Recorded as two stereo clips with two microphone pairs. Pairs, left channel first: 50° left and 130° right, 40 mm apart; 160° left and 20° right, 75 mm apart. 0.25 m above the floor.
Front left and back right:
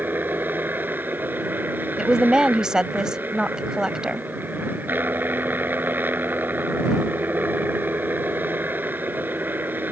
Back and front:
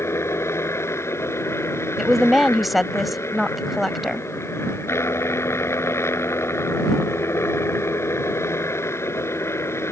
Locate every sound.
0.0 s a helicopter: 150° right
2.0 s a woman speaking: 105° right